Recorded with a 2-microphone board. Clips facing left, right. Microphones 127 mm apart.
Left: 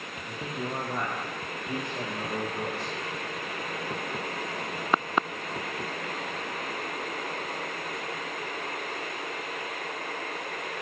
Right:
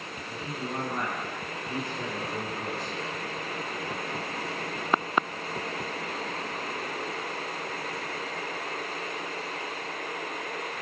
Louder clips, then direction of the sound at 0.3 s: Left 1 dB; 60° left (ahead or behind).